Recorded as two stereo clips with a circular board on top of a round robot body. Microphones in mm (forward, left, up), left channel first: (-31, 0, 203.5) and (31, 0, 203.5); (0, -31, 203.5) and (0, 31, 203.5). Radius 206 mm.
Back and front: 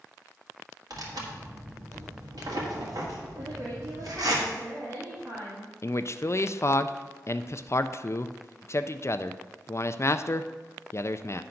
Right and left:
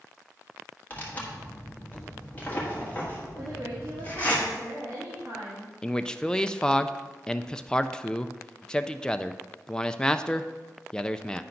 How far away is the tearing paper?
About 1.8 m.